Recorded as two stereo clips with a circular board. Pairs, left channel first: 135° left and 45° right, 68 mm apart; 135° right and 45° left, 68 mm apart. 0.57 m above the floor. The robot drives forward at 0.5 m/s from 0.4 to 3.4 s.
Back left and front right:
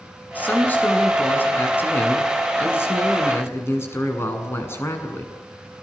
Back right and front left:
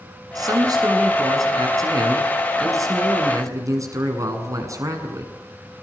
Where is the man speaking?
70° left, 7.5 m; by 5.3 s 80° left, 7 m.